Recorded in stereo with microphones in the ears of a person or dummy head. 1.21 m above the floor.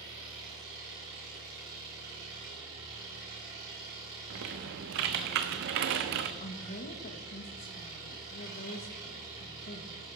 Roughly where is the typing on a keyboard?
Right.